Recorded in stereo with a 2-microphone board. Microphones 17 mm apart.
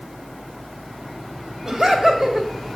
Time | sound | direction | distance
1.6 | laughter | 30° right (ahead or behind) | 2 m